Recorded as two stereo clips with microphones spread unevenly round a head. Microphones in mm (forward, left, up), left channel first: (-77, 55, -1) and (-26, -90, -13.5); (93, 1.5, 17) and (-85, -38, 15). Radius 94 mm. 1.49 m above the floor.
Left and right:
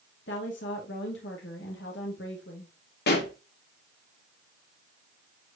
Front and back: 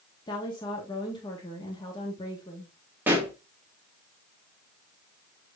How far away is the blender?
I don't hear a blender.